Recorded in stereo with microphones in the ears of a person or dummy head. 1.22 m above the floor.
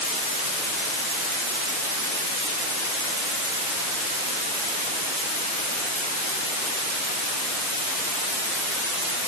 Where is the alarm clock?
I don't hear an alarm clock.